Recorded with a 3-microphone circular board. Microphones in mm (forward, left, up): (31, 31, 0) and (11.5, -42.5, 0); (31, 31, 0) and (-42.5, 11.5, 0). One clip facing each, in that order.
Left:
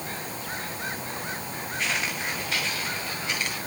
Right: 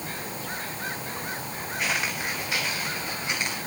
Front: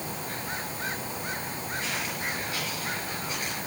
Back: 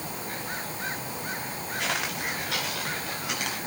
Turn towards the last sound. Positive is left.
turn(degrees=180)